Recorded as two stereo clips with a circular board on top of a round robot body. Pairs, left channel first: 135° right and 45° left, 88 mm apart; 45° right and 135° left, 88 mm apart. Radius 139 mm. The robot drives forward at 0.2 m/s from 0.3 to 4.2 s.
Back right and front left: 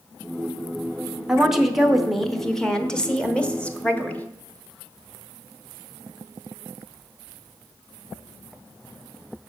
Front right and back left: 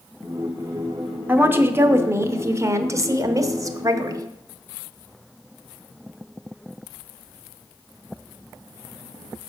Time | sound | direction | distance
1.3 | a woman speaking | 115° left | 0.9 m